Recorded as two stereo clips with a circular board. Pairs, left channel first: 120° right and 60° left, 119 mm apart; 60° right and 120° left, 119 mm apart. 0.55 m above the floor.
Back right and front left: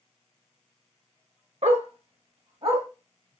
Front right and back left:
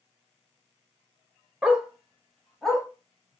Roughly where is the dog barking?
Ahead left.